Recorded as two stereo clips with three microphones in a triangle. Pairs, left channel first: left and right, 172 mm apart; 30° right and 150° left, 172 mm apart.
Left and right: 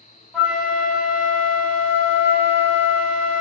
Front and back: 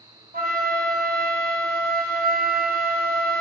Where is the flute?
170° left, 1.0 m.